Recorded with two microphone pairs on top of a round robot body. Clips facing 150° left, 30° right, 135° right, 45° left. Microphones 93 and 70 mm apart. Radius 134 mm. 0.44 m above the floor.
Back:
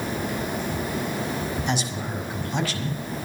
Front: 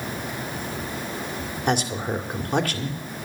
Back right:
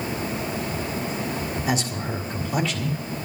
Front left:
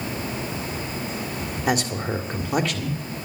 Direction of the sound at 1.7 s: 5° left.